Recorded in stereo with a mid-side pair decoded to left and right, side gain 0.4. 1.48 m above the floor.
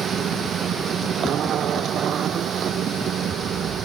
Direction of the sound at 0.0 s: 65° right.